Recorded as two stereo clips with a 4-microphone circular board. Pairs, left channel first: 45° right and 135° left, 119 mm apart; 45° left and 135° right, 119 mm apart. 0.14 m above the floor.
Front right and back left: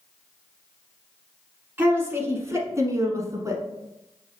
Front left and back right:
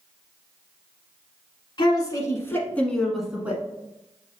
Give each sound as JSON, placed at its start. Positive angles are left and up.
{"t": 1.8, "sound": "a woman speaking", "azimuth_deg": 70, "distance_m": 1.4}